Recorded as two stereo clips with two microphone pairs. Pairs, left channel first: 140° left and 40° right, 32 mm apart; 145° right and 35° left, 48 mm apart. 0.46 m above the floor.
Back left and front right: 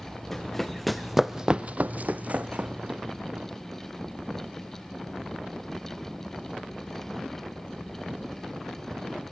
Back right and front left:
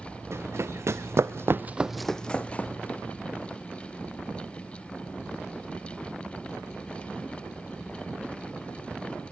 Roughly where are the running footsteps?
Ahead left.